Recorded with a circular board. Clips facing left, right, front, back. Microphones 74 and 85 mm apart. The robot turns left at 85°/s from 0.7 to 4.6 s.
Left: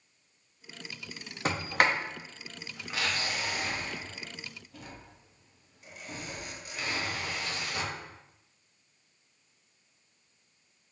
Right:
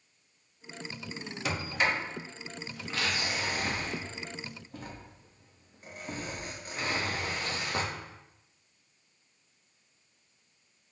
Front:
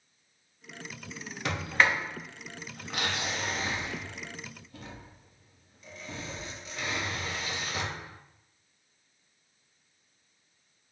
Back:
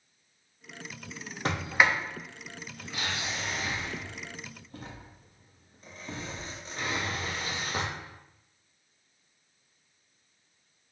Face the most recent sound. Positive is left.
turn(degrees=-135)